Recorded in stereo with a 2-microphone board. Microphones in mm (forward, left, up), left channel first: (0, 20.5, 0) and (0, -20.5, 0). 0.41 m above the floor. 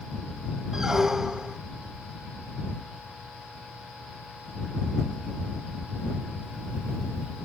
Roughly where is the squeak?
Centre.